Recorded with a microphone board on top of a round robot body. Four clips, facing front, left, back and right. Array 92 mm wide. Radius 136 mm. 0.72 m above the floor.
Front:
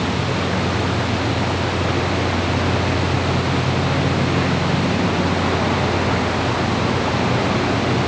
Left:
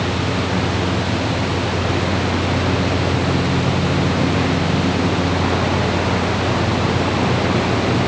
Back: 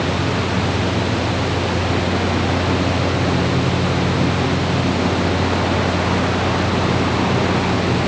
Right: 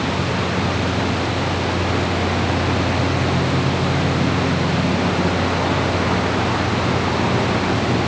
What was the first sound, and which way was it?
Only background noise.